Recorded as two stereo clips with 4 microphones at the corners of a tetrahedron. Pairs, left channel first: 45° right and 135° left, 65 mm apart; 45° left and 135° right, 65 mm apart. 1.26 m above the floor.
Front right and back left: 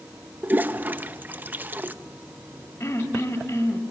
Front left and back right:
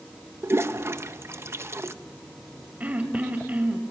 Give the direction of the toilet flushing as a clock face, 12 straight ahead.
6 o'clock.